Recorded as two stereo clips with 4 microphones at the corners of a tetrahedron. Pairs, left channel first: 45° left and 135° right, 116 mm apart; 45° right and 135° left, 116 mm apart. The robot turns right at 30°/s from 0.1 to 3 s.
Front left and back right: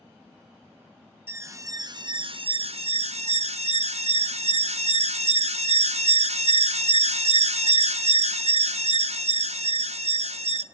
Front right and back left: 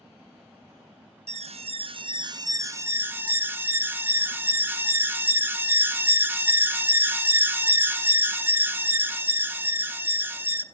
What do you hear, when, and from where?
1.3 s an alarm: 155° left, 0.5 m; by 10.6 s 150° right, 0.5 m